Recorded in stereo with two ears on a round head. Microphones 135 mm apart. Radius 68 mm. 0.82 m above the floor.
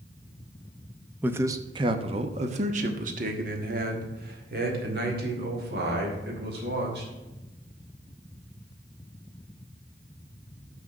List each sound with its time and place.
1.2 s a man speaking: 10° right (ahead or behind), 0.7 m; by 7.1 s 70° right (ahead or behind), 3.5 m